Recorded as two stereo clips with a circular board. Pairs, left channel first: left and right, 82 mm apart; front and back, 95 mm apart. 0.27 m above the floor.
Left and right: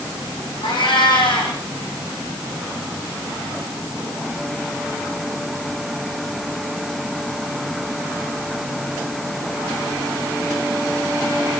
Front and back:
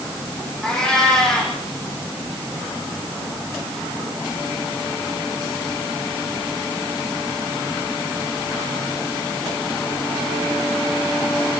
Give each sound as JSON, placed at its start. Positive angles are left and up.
{"t": 0.6, "sound": "a cat meowing", "azimuth_deg": 85, "distance_m": 8.0}